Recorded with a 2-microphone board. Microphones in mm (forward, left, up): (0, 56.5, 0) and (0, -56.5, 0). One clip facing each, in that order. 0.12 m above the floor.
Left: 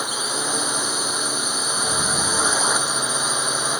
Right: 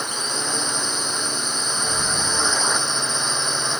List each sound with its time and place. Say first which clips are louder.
0.0 s a drone: left 1 dB; 5° left (ahead or behind)
1.9 s an explosion: left 2 dB; 25° left (ahead or behind)